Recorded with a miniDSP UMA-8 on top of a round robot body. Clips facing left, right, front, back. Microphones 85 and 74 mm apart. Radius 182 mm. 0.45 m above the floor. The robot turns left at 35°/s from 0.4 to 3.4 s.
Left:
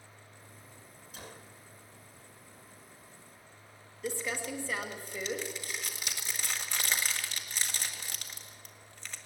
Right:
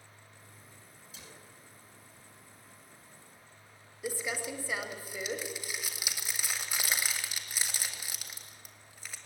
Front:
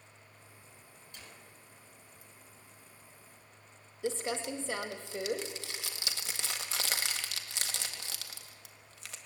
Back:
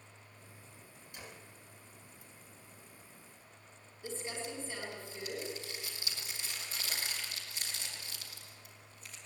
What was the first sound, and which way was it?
A gunshot, 105° left.